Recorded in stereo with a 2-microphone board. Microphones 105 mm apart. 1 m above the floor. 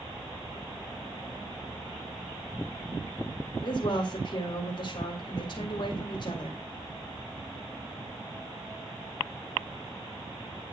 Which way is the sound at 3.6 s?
45° left (ahead or behind).